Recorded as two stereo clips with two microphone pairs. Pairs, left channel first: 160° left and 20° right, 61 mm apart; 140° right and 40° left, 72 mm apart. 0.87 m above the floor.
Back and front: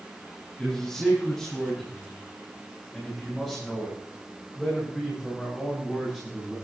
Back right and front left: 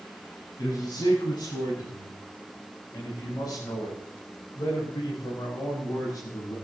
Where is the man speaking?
115° right, 7 m; by 6.5 s 100° right, 9 m.